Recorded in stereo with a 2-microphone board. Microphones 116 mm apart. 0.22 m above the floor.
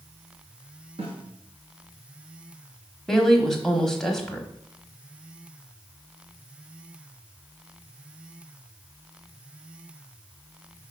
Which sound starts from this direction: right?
A snare drum, at 1.0 s.